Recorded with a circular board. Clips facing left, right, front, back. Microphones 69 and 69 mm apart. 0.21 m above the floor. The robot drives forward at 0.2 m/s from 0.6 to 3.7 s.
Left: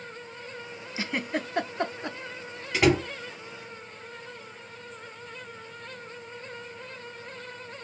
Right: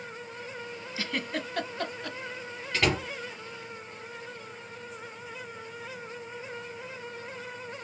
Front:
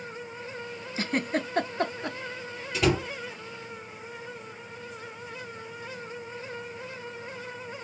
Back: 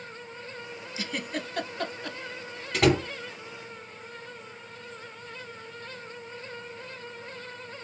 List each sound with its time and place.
1.0 s a giggle: 25° left, 0.7 m; by 2.2 s 45° left, 0.6 m
2.7 s a door slam: 165° left, 2.5 m